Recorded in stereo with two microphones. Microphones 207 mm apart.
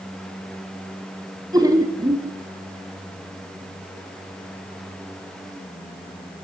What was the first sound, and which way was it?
Laughter, 20° right (ahead or behind).